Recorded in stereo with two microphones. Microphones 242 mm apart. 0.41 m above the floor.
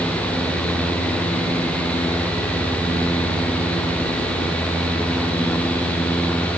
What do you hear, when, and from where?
Only background noise.